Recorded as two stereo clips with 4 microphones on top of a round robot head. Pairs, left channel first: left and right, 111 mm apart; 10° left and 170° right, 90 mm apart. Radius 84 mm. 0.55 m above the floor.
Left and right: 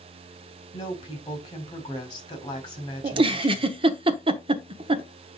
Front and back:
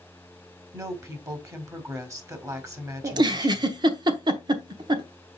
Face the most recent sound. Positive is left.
turn(degrees=-130)